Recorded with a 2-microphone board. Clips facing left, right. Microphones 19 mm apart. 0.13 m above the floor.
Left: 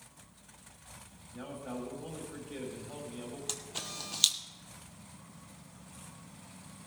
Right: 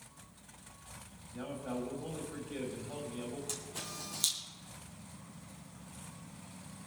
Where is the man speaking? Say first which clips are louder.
Right 2 dB; centre (ahead or behind), 5 m.